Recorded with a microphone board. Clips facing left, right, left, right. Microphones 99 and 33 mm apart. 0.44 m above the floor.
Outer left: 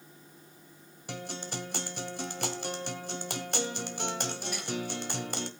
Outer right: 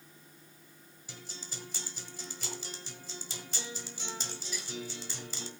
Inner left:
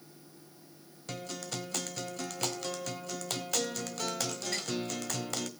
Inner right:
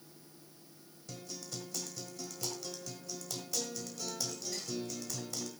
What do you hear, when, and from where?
1.1 s a guitar: 65° left (ahead or behind), 1.5 m